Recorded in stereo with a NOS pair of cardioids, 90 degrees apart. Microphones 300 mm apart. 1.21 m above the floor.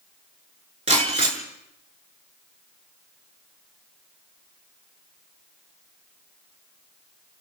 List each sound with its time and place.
0.9 s breaking glass: 20° right, 7.5 m